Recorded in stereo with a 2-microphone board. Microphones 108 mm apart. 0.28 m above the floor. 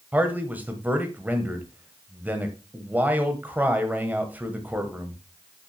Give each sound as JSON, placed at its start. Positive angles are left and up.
{"t": 0.1, "sound": "a man speaking", "side_deg": -15, "distance_m": 1.4}